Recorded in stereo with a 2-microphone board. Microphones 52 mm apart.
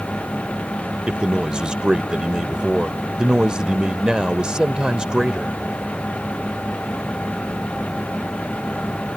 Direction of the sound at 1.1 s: 15° right (ahead or behind).